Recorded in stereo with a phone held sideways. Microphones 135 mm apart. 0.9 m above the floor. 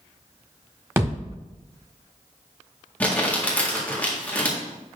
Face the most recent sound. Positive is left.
turn(degrees=10)  # may be behind; listen again after turning